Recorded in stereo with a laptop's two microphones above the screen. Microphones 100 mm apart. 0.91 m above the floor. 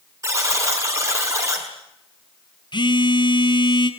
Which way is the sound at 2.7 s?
50° left (ahead or behind).